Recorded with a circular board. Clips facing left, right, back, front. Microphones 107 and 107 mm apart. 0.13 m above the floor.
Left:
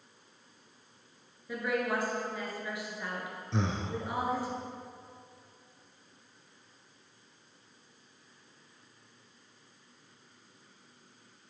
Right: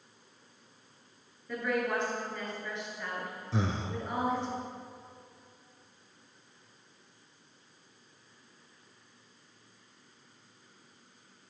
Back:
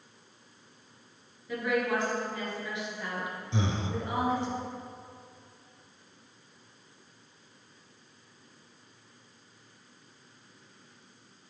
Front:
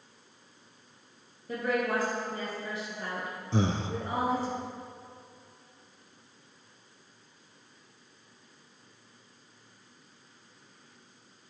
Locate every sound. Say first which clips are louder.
1.5 s a woman speaking: even, even; 15° left, 2 m
3.5 s breathing: even, front 4 dB; 5° right, 0.5 m